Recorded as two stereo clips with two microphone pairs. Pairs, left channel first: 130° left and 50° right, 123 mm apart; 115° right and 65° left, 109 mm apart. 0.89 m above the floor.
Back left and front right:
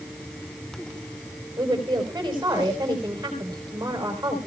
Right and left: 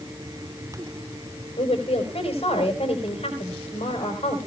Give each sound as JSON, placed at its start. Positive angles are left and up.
{"t": 1.6, "sound": "a woman speaking", "azimuth_deg": -115, "distance_m": 4.0}